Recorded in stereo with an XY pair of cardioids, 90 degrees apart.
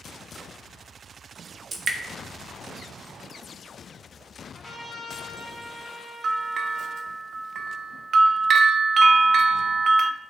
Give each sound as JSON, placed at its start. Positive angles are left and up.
{"t": 1.7, "sound": "dripping", "azimuth_deg": -45, "distance_m": 1.2}
{"t": 4.5, "sound": "a trumpet", "azimuth_deg": -10, "distance_m": 3.0}
{"t": 6.2, "sound": "a bell", "azimuth_deg": -60, "distance_m": 0.6}